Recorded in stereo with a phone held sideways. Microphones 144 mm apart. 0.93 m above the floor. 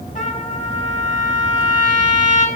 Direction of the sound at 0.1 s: 70° left (ahead or behind).